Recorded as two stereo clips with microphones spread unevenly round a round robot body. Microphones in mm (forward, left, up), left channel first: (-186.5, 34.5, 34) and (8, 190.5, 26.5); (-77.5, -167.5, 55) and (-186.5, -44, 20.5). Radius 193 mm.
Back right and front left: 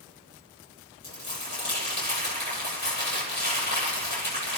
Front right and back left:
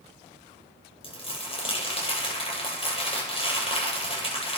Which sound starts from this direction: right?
Crumpling, at 1.0 s.